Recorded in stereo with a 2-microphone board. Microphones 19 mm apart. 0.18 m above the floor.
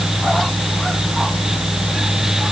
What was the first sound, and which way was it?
Only background noise.